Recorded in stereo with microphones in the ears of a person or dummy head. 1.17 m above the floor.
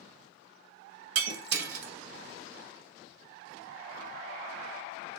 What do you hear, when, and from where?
1.1 s breaking glass: 65° right (ahead or behind), 0.7 m